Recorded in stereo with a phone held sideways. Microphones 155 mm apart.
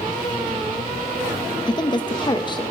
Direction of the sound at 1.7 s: 30° left (ahead or behind).